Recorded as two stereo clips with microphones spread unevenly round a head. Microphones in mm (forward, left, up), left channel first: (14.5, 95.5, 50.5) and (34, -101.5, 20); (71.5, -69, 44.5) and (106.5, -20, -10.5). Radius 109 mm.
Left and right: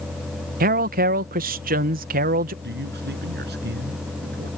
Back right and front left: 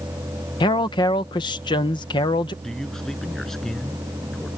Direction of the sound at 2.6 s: 45° right.